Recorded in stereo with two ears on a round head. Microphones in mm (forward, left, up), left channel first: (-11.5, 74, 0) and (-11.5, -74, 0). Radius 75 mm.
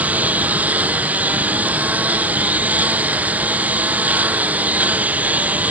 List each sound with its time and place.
0.0 s a lawn mower: 10° right (ahead or behind)